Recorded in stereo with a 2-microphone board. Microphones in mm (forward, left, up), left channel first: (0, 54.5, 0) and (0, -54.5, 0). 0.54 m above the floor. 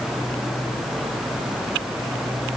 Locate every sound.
Only background noise.